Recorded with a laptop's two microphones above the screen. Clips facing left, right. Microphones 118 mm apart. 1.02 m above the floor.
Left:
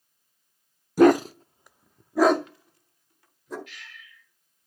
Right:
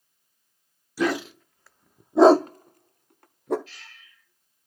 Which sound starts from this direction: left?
A dog barking, at 1.0 s.